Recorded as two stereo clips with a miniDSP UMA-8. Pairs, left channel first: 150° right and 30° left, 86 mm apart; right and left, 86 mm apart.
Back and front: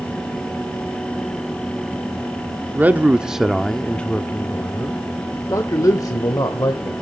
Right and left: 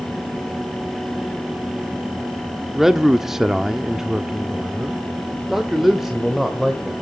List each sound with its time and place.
2.8 s a man speaking: 10° left, 0.9 m; by 6.9 s straight behind, 2 m